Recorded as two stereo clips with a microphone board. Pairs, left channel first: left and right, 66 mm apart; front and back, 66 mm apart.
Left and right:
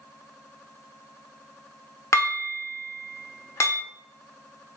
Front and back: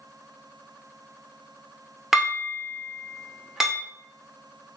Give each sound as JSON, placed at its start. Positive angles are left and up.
{"t": 2.1, "sound": "dishes clattering", "azimuth_deg": 100, "distance_m": 0.9}